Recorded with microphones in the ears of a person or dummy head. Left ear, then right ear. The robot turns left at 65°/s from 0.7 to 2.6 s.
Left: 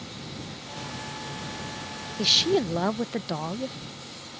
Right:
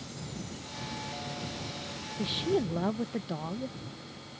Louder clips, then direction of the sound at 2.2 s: Left 9 dB; 60° left (ahead or behind).